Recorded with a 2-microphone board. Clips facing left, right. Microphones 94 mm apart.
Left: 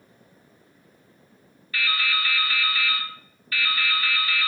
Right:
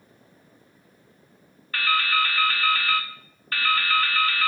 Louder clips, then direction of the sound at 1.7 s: Right 4 dB; 45° right (ahead or behind).